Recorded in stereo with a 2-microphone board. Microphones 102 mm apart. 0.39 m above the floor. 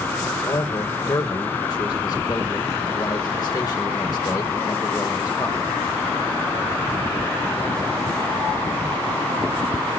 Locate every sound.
0.5 s a man speaking: 40° left (ahead or behind), 1.2 m